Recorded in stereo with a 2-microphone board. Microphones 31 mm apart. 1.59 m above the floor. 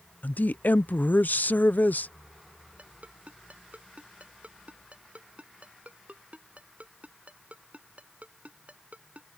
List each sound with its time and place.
0.2 s a woman speaking: 80° left
2.8 s a ringtone: 55° right (ahead or behind)